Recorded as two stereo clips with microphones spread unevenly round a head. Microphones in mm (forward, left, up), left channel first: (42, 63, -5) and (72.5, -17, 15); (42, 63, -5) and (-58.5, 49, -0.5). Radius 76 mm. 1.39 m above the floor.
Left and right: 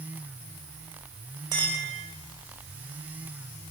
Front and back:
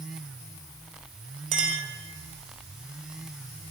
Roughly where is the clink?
Behind right.